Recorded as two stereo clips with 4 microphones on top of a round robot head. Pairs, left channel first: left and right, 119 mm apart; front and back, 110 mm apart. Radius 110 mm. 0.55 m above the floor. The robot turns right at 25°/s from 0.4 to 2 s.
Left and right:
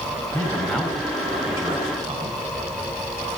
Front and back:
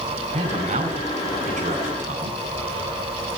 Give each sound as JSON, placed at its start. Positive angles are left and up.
{"t": 0.3, "sound": "a man speaking", "azimuth_deg": 165, "distance_m": 5.0}